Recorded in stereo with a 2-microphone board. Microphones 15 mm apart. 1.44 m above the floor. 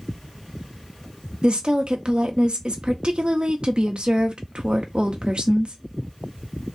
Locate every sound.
1.4 s a woman speaking: 65° right (ahead or behind), 0.8 m